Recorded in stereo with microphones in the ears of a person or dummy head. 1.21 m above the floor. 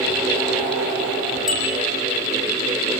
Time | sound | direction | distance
1.5 | a bicycle bell | 5° right (ahead or behind) | 9 m